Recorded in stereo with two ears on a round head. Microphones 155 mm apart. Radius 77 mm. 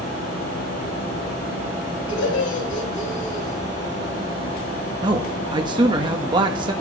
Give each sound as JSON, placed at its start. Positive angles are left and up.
{"t": 2.1, "sound": "laughter", "side_deg": 85, "distance_m": 5.5}
{"t": 5.0, "sound": "a man speaking", "side_deg": -25, "distance_m": 1.3}